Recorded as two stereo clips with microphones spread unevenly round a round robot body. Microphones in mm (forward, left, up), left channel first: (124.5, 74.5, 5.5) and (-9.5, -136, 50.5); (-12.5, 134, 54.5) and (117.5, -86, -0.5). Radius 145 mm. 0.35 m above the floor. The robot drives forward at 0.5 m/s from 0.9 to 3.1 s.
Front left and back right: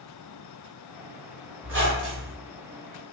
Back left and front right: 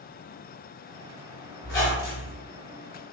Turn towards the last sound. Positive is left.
turn(degrees=-175)